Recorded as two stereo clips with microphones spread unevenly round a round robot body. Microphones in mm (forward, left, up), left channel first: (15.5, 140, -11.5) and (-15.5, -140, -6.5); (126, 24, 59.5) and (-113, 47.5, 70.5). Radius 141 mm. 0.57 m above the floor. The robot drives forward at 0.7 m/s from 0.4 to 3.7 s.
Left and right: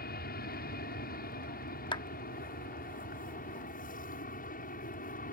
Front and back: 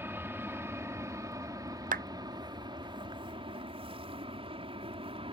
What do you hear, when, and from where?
0.0 s an aircraft: 100° left; by 5.3 s 120° left
1.9 s a clap: 140° left; by 2.0 s 150° left